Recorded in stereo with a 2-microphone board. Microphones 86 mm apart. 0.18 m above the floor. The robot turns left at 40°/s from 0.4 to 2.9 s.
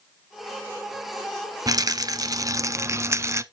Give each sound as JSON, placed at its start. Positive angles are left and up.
{"t": 1.7, "sound": "a rattle", "azimuth_deg": -80, "distance_m": 0.6}